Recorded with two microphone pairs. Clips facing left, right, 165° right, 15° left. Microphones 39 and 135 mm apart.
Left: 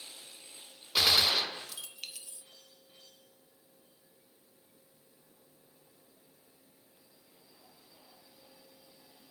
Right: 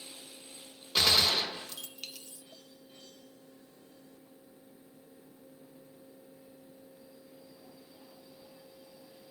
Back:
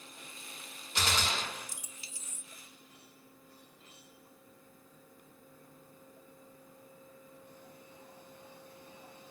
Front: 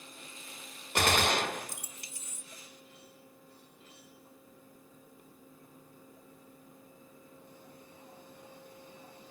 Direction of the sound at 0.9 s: 5° left.